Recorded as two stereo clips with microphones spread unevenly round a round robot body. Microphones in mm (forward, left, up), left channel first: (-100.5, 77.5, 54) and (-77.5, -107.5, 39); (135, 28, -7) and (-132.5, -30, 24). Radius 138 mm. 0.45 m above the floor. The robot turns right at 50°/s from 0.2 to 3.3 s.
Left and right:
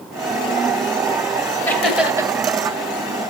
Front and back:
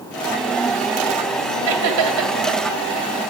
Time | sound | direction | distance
1.7 | laughter | 175° left | 2.5 m